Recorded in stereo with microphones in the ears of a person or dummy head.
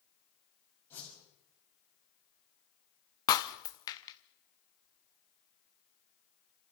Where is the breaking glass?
15° left (ahead or behind), 0.8 m.